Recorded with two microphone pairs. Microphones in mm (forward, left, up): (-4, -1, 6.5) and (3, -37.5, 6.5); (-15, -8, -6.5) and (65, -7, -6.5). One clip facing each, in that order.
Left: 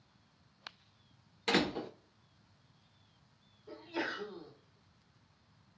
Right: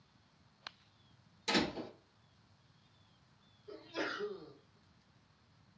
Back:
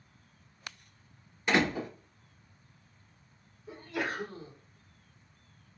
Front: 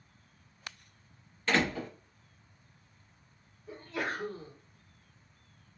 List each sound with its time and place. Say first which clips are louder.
1.5 s a door slam: left 3 dB, back 2 dB; 110° left, 0.9 m
3.7 s a sneeze: left 2 dB, back 1 dB; 105° left, 2.0 m